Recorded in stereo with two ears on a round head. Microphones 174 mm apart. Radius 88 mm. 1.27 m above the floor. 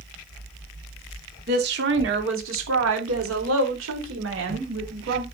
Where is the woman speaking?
50° right (ahead or behind), 2.5 m; by 5.2 s 75° right (ahead or behind), 5 m.